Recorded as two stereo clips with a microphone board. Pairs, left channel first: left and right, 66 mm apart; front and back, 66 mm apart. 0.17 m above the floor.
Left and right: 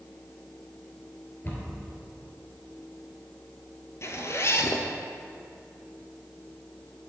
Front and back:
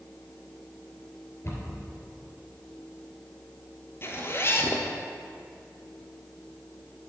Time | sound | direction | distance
1.4 | a cupboard door | 35° left | 3.5 m
4.0 | a zipper | 50° left | 1.0 m